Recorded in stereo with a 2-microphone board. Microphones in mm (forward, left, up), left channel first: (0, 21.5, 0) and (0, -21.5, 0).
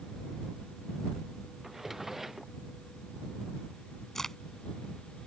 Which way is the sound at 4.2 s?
10° left (ahead or behind).